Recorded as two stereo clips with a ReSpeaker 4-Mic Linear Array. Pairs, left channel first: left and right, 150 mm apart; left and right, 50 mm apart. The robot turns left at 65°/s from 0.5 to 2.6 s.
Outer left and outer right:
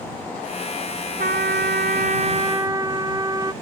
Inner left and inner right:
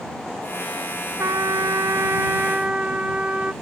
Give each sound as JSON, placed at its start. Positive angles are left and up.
{"t": 1.2, "sound": "a trumpet", "azimuth_deg": -65}